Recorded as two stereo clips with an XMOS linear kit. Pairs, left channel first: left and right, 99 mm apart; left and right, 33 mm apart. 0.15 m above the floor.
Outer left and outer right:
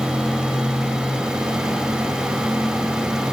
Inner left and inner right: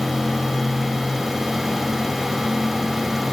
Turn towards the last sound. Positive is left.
No sound to turn to.